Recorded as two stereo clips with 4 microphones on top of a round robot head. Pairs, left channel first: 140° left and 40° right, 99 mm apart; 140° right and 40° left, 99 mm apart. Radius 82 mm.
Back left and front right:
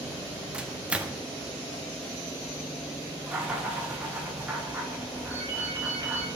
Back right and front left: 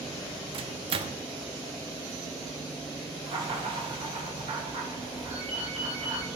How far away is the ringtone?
About 4.5 m.